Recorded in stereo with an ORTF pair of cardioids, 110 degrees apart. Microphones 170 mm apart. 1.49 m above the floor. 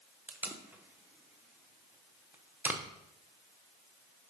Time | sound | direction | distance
0.3 | tape being pulled | 10° right | 1.0 m